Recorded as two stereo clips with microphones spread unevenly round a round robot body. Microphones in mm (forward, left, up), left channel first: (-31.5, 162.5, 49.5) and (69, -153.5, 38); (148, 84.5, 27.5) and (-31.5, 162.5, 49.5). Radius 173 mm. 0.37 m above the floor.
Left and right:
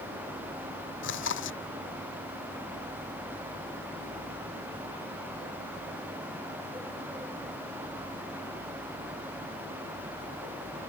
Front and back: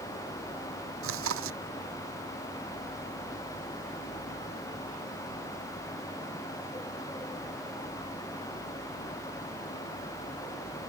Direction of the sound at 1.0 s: 165° left.